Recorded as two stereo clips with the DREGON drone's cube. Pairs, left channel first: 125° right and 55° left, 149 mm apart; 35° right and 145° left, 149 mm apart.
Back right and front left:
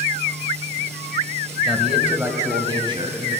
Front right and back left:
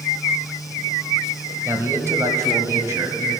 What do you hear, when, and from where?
1.6 s a man speaking: 155° left, 1.3 m; by 3.4 s 80° left, 2.0 m